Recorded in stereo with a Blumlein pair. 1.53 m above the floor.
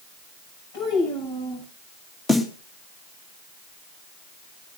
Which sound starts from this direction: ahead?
A snare drum, at 2.3 s.